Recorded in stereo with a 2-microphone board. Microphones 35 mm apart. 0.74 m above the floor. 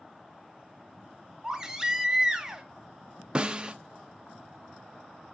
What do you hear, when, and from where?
1.4 s a baby crying: 15° right (ahead or behind), 1.5 m
3.4 s a snare drum: 25° right (ahead or behind), 0.7 m